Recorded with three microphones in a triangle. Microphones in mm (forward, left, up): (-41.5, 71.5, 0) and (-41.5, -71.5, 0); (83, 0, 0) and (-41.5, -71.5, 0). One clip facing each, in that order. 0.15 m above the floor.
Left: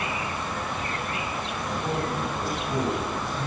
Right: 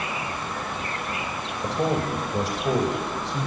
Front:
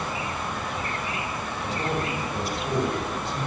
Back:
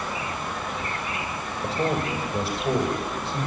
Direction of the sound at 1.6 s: 90° right.